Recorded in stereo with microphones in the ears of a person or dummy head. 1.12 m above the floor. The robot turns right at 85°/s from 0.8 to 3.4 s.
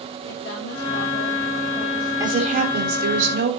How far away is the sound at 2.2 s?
About 3.5 m.